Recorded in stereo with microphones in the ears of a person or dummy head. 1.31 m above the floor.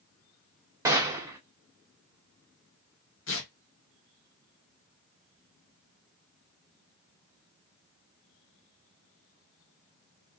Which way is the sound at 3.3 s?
60° left (ahead or behind).